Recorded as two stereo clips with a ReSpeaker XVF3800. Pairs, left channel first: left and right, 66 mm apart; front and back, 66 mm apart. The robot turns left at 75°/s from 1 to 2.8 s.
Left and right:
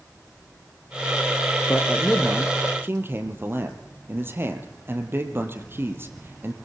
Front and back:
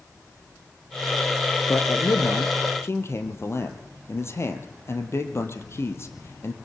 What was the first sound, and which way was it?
A man speaking, 45° left.